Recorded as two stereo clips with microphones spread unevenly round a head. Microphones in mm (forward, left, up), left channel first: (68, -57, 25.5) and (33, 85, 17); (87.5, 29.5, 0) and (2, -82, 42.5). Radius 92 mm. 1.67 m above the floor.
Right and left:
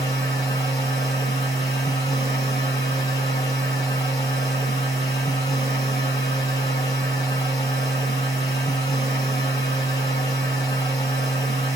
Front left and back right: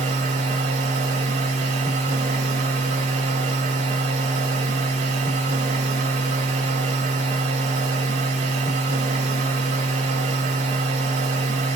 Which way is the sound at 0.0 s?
145° right.